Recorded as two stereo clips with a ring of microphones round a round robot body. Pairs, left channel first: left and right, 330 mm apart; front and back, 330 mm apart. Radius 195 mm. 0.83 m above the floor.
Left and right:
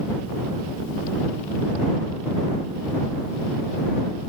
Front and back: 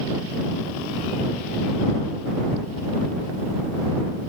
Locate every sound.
Only background noise.